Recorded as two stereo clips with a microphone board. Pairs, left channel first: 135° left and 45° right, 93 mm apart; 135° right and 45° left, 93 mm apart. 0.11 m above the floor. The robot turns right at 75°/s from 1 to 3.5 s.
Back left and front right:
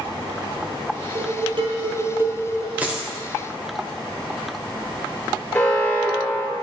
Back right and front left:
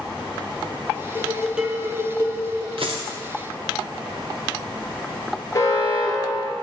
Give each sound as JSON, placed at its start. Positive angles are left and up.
{"t": 1.1, "sound": "dishes clattering", "azimuth_deg": -65, "distance_m": 1.7}
{"t": 2.8, "sound": "a dropped coin", "azimuth_deg": 25, "distance_m": 1.6}
{"t": 5.5, "sound": "an alarm", "azimuth_deg": -170, "distance_m": 1.6}